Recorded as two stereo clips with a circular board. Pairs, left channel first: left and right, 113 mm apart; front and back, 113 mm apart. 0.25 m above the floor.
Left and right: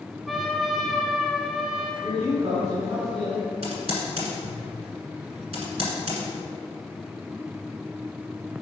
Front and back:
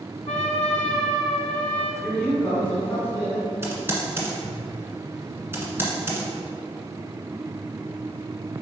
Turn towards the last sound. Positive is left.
turn(degrees=-115)